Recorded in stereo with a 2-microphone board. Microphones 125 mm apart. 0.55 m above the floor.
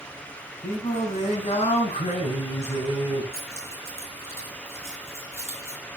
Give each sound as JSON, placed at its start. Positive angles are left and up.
{"t": 0.6, "sound": "singing", "side_deg": 70, "distance_m": 4.0}
{"t": 3.3, "sound": "keys jangling", "side_deg": -25, "distance_m": 6.5}